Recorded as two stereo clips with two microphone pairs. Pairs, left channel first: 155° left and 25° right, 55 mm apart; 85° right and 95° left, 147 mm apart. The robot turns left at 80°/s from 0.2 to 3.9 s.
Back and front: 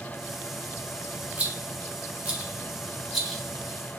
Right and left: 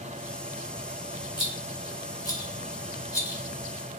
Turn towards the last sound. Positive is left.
turn(degrees=175)